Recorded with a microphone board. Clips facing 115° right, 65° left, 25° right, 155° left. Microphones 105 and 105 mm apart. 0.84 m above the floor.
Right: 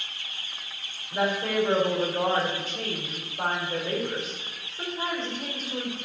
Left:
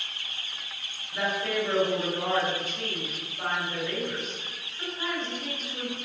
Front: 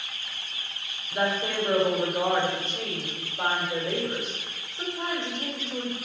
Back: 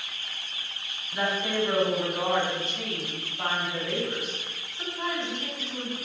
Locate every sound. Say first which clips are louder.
1.1 s a woman speaking: right 3 dB, front 1 dB; 60° right, 3 m